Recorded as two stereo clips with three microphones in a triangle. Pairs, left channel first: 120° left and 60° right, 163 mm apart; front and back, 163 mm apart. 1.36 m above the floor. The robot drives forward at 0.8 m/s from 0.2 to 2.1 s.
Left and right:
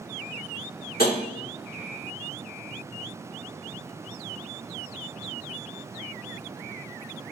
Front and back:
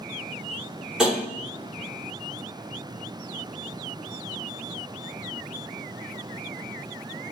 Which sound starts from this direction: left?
Tapping, at 1.0 s.